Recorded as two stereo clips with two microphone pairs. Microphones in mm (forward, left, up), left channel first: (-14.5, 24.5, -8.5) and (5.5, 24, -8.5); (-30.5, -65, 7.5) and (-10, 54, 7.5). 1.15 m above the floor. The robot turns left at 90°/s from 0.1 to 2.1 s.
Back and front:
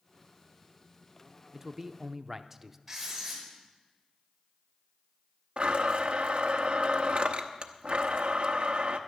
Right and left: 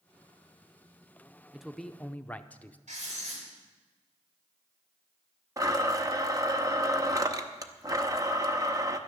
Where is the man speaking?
5° left, 0.5 m; by 2.8 s 50° right, 0.5 m.